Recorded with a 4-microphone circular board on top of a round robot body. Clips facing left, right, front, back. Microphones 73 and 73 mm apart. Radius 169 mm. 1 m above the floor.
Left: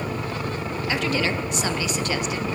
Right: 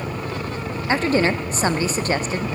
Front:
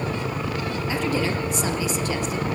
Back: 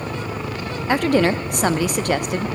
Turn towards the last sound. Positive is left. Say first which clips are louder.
# right 6 dB, back 9 dB
turn(degrees=-145)